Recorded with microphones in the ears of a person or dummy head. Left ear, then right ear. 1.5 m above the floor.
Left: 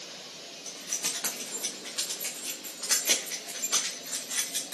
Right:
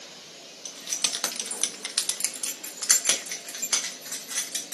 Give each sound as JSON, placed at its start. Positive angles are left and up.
{"t": 0.7, "sound": "keys jangling", "side_deg": -30, "distance_m": 0.8}